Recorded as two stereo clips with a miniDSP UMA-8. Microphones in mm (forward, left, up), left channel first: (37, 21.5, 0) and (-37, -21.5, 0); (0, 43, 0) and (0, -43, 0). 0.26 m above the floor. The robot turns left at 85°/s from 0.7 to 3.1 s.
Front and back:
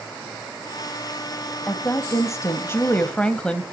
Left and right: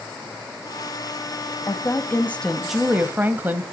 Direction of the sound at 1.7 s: 80° left.